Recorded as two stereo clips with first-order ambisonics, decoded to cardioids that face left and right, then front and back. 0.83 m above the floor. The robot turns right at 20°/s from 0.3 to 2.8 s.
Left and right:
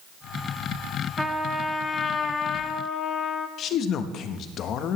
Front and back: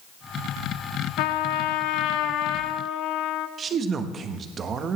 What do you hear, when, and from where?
1.2 s a trumpet: straight ahead, 0.7 m; by 3.5 s 35° left, 0.7 m
3.6 s a man speaking: 125° left, 1.0 m